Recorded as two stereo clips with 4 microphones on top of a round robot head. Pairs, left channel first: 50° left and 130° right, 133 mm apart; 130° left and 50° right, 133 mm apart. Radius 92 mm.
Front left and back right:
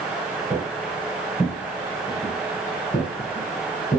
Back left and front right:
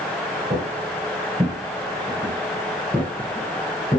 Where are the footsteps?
65° right, 1.4 m; by 4.0 s 75° left, 1.8 m.